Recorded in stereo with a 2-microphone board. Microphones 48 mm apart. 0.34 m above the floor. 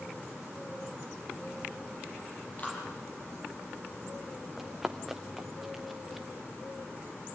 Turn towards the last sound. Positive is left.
turn(degrees=0)  # may be behind; listen again after turning